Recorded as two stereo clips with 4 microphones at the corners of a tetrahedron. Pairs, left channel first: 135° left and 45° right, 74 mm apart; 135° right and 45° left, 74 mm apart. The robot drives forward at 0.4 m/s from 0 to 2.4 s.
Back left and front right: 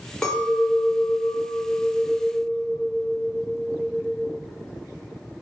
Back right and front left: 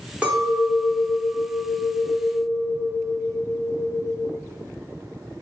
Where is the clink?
70° left, 0.6 m; by 4.2 s 165° left, 1.0 m.